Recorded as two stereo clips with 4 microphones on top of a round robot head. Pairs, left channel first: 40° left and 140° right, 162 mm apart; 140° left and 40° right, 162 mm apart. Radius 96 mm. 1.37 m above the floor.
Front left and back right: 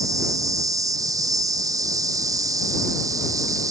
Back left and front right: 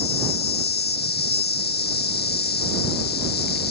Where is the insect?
150° left.